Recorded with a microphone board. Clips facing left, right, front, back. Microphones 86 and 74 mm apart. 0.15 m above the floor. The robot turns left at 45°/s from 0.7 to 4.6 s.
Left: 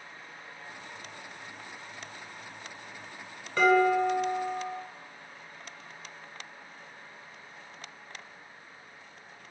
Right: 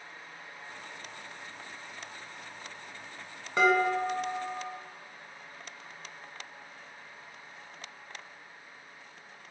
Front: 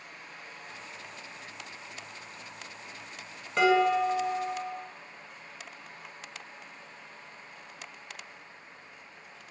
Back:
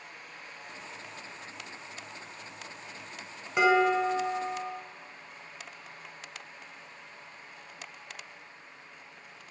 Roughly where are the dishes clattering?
Behind right.